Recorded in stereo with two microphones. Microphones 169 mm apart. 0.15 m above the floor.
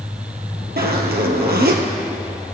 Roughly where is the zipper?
Right.